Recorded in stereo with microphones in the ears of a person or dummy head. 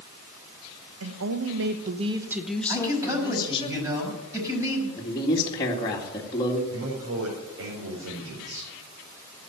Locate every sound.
1.0 s a woman speaking: 80° right, 1.4 m; by 3.7 s 30° left (ahead or behind), 2.5 m
2.7 s a man speaking: 20° right (ahead or behind), 6 m
5.0 s a woman speaking: 20° left (ahead or behind), 2.0 m
6.7 s a man speaking: 75° right (ahead or behind), 4.5 m